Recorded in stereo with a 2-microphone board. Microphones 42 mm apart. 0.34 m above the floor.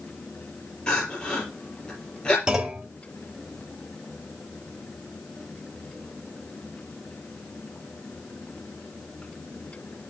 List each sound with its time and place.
0.9 s crying: 25° left (ahead or behind), 4.5 m
2.5 s a clunk: 15° right (ahead or behind), 0.8 m